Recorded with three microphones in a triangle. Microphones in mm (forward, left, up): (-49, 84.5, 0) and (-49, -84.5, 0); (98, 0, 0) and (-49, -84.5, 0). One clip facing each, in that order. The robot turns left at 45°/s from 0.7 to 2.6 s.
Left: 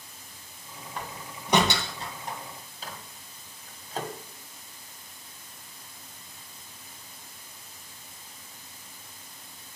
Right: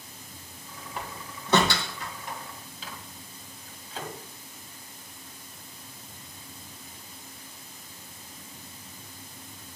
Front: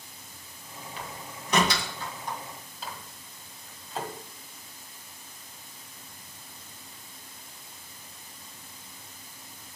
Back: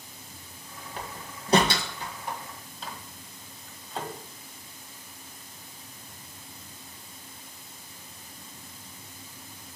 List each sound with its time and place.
1.0 s a door slam: 170° right, 1.9 m; by 2.4 s 125° left, 1.9 m
2.8 s a microwave: 115° left, 1.8 m